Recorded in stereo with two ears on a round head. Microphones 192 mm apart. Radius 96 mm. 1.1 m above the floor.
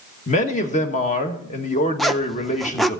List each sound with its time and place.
0.3 s a man speaking: 35° left (ahead or behind), 1.6 m
2.0 s a zipper: centre (ahead or behind), 0.5 m